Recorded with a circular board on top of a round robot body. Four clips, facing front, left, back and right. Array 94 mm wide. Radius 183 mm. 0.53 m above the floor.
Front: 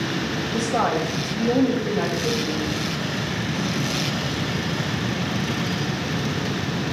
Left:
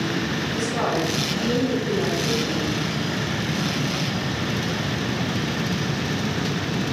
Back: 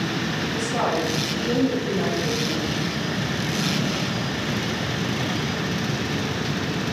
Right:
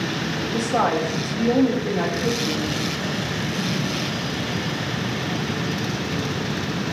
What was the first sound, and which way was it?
A woman speaking, 55° right.